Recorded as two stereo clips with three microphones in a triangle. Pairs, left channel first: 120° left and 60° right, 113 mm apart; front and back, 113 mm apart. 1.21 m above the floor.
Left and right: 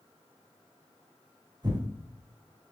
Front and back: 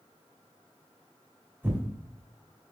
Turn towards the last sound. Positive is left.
turn(degrees=-110)